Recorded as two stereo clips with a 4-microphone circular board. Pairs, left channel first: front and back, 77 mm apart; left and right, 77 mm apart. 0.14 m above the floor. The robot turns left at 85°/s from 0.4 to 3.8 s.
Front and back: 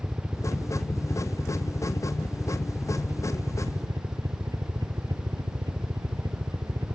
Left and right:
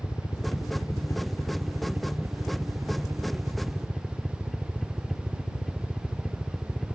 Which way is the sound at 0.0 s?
105° left.